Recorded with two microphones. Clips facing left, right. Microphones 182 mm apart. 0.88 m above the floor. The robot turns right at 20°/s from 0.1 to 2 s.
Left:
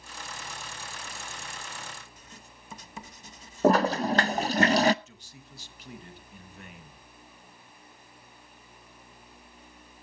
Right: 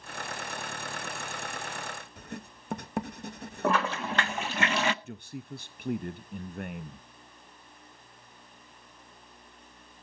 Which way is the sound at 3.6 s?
40° left (ahead or behind).